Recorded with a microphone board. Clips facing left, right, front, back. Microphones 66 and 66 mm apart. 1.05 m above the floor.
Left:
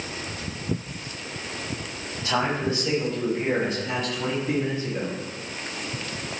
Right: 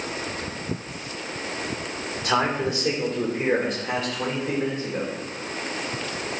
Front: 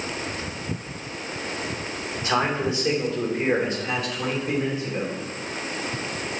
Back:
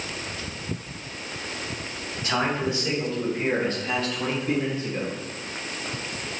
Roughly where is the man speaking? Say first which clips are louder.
Right 2 dB, front 2 dB; ahead right.